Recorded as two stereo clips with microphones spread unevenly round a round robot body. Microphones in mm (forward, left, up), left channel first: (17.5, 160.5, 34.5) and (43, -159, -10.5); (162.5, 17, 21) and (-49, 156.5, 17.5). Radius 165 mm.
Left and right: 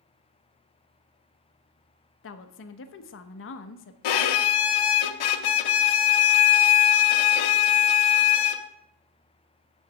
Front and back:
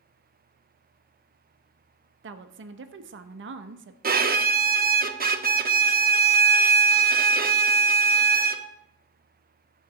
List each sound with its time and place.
2.2 s a woman speaking: 140° left, 0.6 m
4.0 s a violin: 90° left, 0.8 m